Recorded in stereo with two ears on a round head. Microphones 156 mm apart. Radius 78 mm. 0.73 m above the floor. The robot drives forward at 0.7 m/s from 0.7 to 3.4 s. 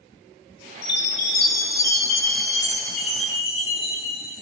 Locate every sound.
0.8 s a chime: 65° left (ahead or behind), 0.9 m; by 4.4 s 25° left (ahead or behind), 2 m